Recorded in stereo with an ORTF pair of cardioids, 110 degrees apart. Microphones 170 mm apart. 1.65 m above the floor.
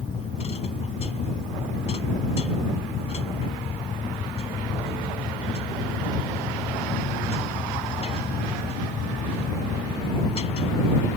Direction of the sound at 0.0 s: 40° left.